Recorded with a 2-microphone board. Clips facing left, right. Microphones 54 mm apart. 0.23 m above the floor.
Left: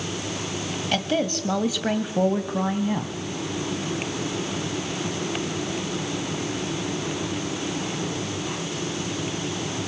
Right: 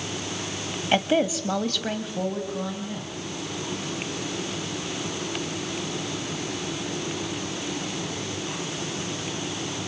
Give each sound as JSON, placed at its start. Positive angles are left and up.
{"t": 0.9, "sound": "a woman speaking", "side_deg": -20, "distance_m": 1.3}